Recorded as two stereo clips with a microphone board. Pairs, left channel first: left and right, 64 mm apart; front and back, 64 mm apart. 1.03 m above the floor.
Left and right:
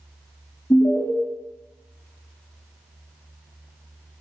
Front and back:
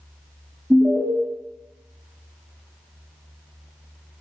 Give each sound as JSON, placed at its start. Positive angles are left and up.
{"t": 0.7, "sound": "an alarm", "azimuth_deg": 120, "distance_m": 3.0}